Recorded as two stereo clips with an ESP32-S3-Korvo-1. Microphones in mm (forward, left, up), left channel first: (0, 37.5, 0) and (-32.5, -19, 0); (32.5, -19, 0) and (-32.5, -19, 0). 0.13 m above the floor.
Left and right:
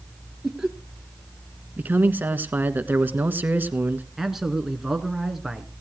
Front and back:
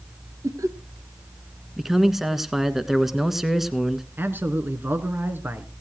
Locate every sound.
0.4 s laughter: 160° left, 3 m
1.8 s a man speaking: 100° right, 1.5 m
4.2 s a man speaking: 160° left, 1.7 m